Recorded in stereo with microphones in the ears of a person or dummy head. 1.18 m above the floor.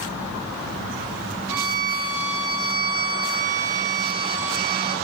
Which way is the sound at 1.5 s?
5° right (ahead or behind).